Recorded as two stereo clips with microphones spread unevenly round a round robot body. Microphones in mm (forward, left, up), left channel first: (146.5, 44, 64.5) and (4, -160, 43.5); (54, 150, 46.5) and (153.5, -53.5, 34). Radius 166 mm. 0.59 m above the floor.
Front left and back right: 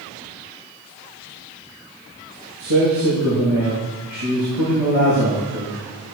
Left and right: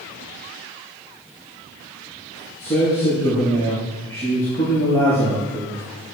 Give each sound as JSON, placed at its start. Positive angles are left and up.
{"t": 2.6, "sound": "a man speaking", "azimuth_deg": -165, "distance_m": 8.5}